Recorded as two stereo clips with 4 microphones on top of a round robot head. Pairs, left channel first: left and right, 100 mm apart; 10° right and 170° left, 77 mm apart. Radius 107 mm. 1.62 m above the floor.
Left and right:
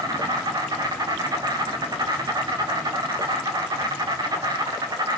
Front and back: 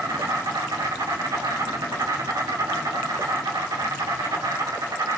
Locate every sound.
0.0 s an insect: 140° right, 2 m